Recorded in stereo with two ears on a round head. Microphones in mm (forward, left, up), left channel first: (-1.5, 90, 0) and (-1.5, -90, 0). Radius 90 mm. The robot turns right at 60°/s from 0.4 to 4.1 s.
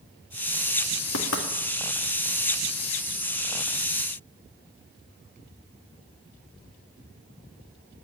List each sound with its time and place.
1.1 s knocking: 80° left, 2 m